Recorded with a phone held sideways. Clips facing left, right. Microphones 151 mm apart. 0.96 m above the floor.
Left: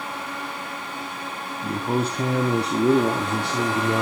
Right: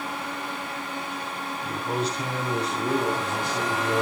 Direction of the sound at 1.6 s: 45° left (ahead or behind).